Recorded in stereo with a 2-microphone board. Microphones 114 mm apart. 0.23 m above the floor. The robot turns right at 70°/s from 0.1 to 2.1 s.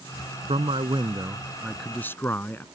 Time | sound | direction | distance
0.5 | a man speaking | 90° right | ?